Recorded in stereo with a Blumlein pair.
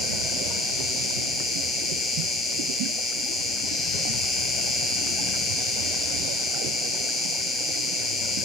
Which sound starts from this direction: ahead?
An insect, at 0.0 s.